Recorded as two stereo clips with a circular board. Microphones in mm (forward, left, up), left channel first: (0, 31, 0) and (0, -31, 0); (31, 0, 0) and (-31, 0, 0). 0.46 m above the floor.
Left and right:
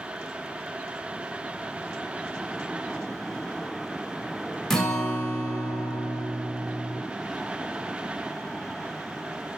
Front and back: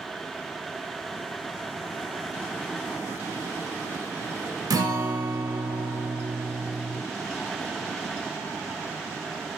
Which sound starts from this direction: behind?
A guitar, at 4.7 s.